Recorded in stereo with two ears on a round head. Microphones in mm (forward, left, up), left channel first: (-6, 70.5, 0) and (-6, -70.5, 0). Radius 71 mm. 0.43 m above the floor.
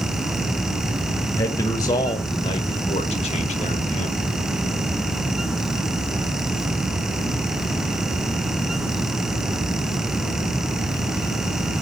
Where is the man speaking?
20° left (ahead or behind), 1.7 m; by 4.2 s 45° left (ahead or behind), 1.1 m.